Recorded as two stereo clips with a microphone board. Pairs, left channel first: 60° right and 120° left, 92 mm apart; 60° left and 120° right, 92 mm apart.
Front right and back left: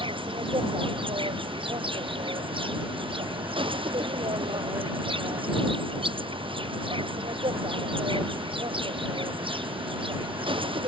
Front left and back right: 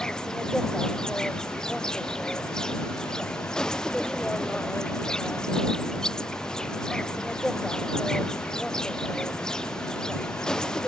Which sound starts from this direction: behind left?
An insect, at 0.0 s.